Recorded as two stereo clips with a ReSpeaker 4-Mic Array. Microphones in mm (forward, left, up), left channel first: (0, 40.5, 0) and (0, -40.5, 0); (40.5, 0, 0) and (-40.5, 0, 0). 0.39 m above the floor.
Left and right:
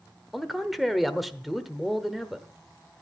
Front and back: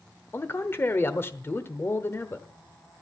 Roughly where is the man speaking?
Ahead.